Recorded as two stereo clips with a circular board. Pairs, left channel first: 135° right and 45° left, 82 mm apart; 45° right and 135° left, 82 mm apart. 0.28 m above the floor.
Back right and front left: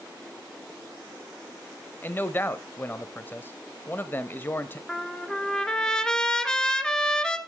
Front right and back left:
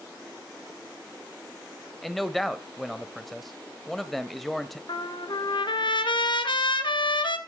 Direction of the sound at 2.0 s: 130° right.